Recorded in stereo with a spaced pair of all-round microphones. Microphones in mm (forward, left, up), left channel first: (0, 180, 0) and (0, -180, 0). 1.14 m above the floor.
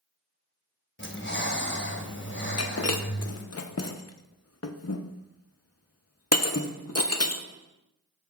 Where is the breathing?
35° left (ahead or behind), 1.1 m.